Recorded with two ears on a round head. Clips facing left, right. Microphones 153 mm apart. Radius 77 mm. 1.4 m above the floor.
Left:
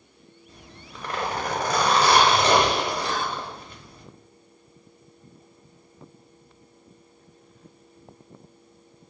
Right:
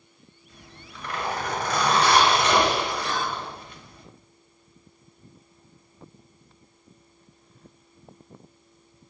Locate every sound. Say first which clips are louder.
0.5 s a zipper: left 1 dB; 30° left (ahead or behind), 0.9 m
3.0 s whispering: even; 25° left (ahead or behind), 1.4 m